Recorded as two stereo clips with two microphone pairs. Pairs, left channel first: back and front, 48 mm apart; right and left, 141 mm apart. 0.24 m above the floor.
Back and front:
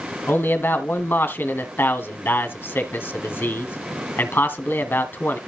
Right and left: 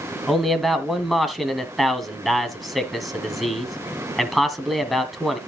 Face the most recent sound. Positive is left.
turn(degrees=180)